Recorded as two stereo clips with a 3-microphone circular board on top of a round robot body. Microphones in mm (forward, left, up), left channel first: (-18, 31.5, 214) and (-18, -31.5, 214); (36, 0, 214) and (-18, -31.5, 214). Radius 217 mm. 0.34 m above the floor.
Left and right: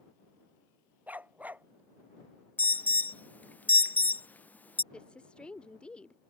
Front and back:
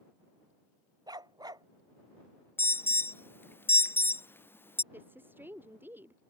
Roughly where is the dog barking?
Behind right.